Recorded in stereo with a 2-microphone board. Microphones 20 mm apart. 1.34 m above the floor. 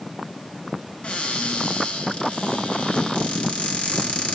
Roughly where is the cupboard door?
Left.